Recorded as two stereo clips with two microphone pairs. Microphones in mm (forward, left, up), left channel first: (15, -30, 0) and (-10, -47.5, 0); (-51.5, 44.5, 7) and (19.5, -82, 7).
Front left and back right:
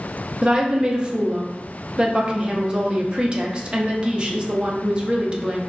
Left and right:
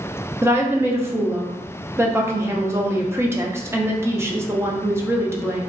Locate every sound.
0.4 s a woman speaking: 120° right, 0.6 m